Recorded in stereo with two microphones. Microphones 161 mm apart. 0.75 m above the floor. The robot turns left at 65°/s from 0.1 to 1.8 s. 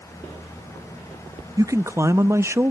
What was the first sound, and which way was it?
A man speaking, 25° right (ahead or behind).